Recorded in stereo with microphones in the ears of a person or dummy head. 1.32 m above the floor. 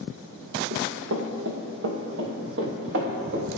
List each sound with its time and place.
0.7 s running footsteps: 60° right (ahead or behind), 2.5 m; by 3.5 s 55° right (ahead or behind), 4 m